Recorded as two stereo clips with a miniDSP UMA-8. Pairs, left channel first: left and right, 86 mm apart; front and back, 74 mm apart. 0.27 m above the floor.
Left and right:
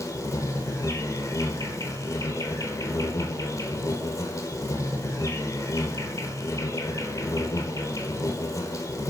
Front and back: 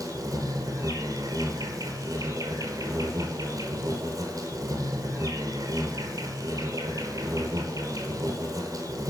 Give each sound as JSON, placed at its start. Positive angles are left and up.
{"t": 0.0, "sound": "an insect", "azimuth_deg": 140, "distance_m": 1.1}